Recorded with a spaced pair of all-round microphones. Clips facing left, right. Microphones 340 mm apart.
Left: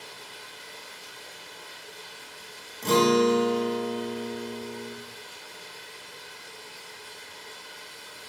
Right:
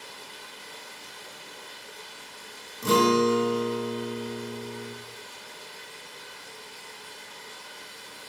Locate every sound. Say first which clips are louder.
0.0 s running water: even; 60° right (ahead or behind), 1.7 m
2.8 s a guitar: left 1 dB; 15° right (ahead or behind), 0.6 m